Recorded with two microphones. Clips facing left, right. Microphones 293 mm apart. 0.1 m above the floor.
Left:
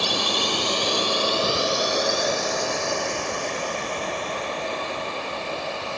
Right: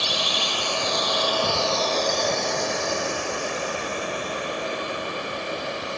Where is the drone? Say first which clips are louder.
Left 4 dB; 65° left (ahead or behind); by 6.0 s 20° right (ahead or behind).